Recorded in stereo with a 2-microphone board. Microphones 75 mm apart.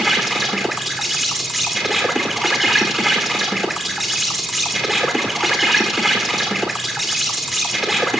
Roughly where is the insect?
Centre.